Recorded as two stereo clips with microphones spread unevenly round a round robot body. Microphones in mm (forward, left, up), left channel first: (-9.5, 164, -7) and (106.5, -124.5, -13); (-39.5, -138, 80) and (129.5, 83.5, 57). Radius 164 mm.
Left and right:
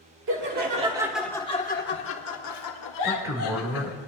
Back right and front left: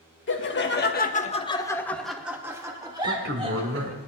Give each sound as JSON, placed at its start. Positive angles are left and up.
{"t": 0.3, "sound": "laughter", "azimuth_deg": -95, "distance_m": 1.4}
{"t": 3.0, "sound": "a man speaking", "azimuth_deg": 10, "distance_m": 3.0}